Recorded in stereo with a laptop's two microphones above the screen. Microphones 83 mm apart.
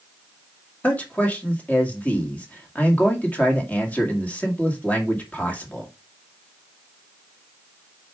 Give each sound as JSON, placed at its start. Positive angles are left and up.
{"t": 0.8, "sound": "a man speaking", "side_deg": 20, "distance_m": 1.7}